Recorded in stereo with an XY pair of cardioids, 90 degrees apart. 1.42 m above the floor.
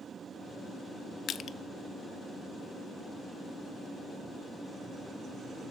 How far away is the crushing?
About 0.7 m.